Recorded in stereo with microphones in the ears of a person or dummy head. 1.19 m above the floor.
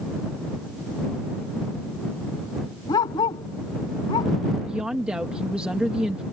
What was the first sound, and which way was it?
A dog barking, 25° left (ahead or behind).